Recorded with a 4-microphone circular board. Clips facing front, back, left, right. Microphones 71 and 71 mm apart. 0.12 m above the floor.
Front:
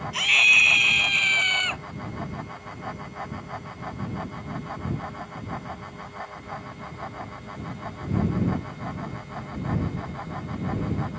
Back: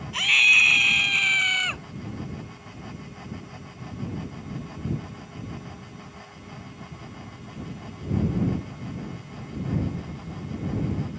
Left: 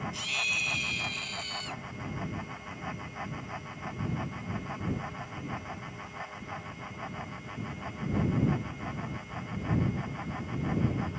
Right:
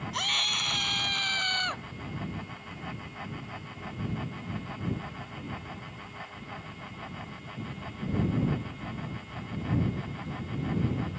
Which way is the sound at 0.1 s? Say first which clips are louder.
Even, right 2 dB; 90° right.